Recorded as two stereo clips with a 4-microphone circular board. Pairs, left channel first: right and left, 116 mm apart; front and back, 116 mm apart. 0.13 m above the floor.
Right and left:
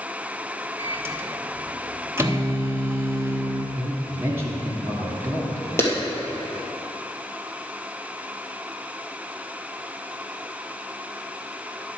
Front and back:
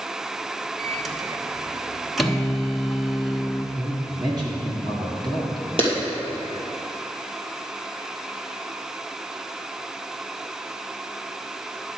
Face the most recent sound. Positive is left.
turn(degrees=-155)